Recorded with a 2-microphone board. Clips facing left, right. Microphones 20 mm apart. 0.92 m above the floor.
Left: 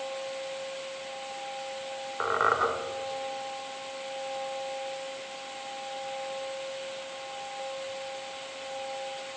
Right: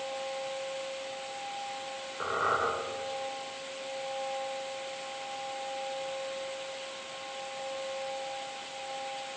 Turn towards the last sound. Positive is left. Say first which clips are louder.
# left 4 dB
turn(degrees=35)  # may be behind; listen again after turning